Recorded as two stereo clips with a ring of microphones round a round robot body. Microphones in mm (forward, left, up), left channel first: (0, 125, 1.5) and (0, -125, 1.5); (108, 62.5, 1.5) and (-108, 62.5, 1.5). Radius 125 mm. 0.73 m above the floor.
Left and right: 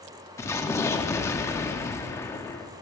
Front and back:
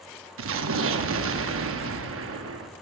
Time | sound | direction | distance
0.4 | an explosion | 170° left | 0.9 m